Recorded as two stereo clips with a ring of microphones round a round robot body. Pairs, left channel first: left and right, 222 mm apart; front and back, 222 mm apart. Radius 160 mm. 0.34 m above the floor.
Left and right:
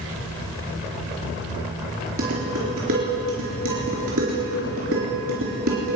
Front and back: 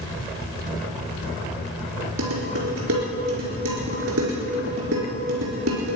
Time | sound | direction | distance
2.2 | dishes clattering | 135° right | 4 m